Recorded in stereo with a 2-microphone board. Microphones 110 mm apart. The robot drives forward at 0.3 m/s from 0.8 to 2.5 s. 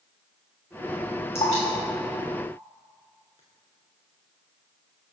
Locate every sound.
1.4 s dripping: 70° left (ahead or behind), 2.5 m; by 3.4 s 60° left (ahead or behind), 2.5 m